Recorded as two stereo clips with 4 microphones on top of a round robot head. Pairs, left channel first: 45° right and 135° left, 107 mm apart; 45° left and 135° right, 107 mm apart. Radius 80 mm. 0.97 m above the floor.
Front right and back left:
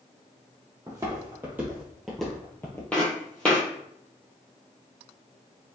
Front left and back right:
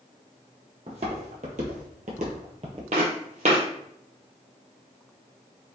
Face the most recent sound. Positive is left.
turn(degrees=-120)